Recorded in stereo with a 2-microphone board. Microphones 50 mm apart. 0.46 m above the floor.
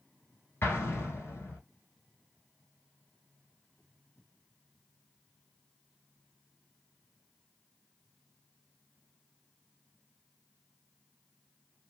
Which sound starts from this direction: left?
An explosion, at 0.6 s.